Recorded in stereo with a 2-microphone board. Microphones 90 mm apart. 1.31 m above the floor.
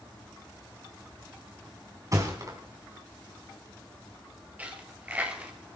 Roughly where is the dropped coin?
Centre.